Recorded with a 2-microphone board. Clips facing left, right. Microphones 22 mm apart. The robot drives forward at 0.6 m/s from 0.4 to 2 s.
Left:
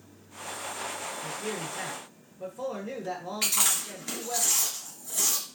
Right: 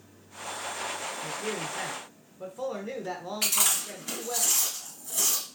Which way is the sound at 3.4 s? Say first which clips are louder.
Even; 10° left (ahead or behind).